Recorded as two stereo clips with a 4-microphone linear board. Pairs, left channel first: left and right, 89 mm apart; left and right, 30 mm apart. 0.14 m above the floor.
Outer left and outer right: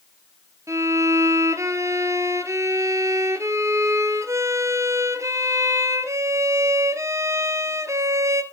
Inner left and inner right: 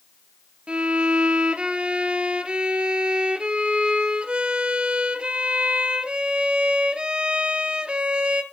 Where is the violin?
35° right (ahead or behind), 0.9 m.